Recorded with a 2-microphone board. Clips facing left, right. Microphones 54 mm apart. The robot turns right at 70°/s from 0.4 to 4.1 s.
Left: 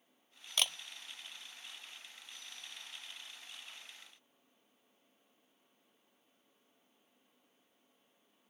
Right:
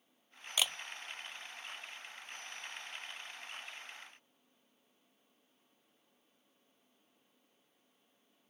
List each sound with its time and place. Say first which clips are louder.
0.6 s a camera shutter: even; 10° right (ahead or behind); by 0.8 s 5° left (ahead or behind)